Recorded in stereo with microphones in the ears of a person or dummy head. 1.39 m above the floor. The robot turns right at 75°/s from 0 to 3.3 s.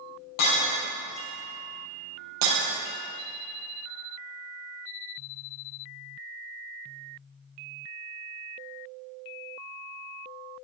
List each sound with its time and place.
0.4 s breaking glass: 55° left (ahead or behind), 4.5 m; by 2.6 s 65° right (ahead or behind), 4.5 m